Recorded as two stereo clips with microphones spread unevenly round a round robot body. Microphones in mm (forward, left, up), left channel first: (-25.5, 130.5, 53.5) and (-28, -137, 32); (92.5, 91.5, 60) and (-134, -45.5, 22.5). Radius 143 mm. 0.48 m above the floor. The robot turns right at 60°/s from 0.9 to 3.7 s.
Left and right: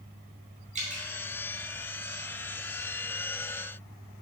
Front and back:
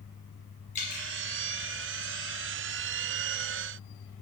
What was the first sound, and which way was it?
Dripping, 35° right.